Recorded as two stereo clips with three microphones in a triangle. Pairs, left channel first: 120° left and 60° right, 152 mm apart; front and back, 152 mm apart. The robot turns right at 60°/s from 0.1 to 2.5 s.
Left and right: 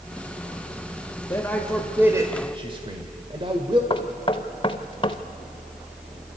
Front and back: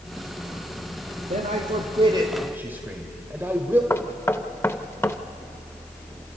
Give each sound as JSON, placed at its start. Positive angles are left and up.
{"t": 1.3, "sound": "a man speaking", "azimuth_deg": 180, "distance_m": 1.7}
{"t": 3.9, "sound": "knocking", "azimuth_deg": 70, "distance_m": 0.9}